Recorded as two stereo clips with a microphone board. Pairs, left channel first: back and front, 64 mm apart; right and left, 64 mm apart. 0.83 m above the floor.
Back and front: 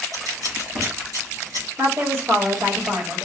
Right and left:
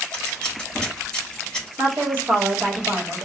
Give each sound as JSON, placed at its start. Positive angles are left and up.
{"t": 0.1, "sound": "scissors", "azimuth_deg": -10, "distance_m": 3.0}
{"t": 1.8, "sound": "a woman speaking", "azimuth_deg": 35, "distance_m": 1.6}